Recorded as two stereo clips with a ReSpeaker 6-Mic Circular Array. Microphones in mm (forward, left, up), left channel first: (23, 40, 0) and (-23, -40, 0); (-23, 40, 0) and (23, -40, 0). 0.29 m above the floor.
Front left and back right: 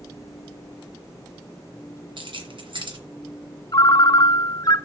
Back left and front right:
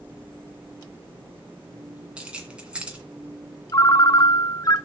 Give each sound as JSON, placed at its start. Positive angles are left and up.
{"t": 2.2, "sound": "keys jangling", "azimuth_deg": -135, "distance_m": 1.9}
{"t": 3.7, "sound": "a ringtone", "azimuth_deg": 90, "distance_m": 0.7}